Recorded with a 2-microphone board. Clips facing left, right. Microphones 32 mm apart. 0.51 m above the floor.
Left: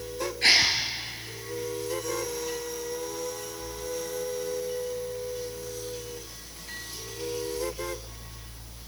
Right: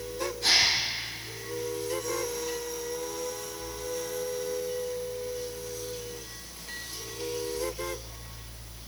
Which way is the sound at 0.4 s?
55° left (ahead or behind).